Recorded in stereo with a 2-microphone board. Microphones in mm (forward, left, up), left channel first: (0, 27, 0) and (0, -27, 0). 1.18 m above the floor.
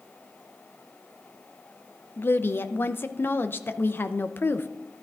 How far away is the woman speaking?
About 0.6 m.